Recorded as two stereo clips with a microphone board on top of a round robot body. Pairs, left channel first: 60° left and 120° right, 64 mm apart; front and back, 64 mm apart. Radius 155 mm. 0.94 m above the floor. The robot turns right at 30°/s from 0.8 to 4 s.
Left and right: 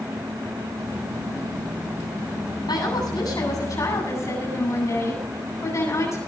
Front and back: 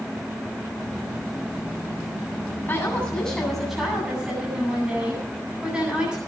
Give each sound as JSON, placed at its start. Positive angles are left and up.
{"t": 2.7, "sound": "a woman speaking", "azimuth_deg": 65, "distance_m": 8.5}